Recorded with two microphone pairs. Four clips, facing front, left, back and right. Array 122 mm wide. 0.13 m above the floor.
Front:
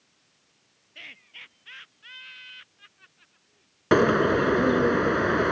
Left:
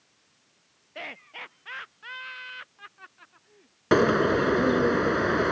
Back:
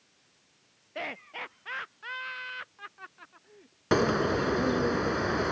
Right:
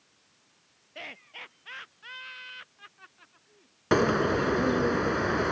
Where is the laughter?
160° left.